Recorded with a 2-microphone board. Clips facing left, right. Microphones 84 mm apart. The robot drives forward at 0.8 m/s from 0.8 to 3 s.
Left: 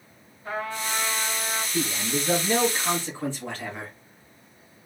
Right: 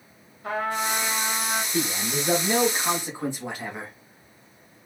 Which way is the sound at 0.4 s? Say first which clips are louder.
Right 4 dB; 70° right (ahead or behind).